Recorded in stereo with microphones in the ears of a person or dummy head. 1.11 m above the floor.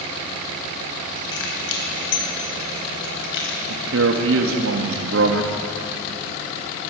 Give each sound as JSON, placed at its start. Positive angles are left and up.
{"t": 1.3, "sound": "keys jangling", "side_deg": 80, "distance_m": 5.5}
{"t": 3.7, "sound": "a man speaking", "side_deg": -75, "distance_m": 1.9}